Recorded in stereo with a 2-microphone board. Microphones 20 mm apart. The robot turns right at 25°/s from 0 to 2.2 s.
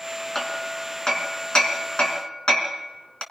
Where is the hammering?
20° left (ahead or behind), 3 m; by 3.2 s 60° left (ahead or behind), 3 m.